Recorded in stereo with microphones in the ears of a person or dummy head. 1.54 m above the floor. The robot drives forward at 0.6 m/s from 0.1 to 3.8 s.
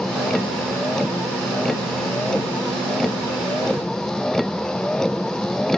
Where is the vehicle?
5° left (ahead or behind).